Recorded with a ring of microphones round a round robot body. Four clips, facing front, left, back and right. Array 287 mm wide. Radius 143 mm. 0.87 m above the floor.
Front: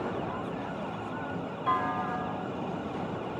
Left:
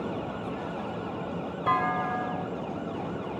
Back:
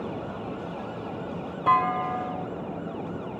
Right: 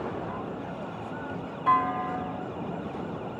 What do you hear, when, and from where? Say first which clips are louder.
1.7 s a clunk: right 2 dB, back 7 dB; 145° left, 1.3 m